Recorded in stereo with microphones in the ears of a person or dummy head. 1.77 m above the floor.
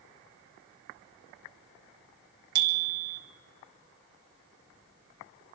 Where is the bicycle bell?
60° right (ahead or behind), 2.5 m.